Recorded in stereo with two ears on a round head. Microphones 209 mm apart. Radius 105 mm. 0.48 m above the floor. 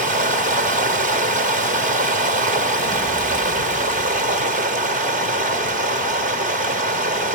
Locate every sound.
0.0 s running water: 35° right (ahead or behind), 0.9 m